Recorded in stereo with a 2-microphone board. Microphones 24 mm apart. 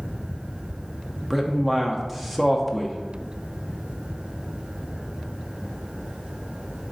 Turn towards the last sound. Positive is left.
turn(degrees=0)  # may be behind; listen again after turning